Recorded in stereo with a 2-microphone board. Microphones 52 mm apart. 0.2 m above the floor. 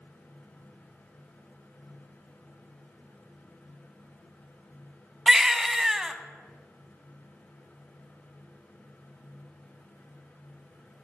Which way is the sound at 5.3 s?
10° right (ahead or behind).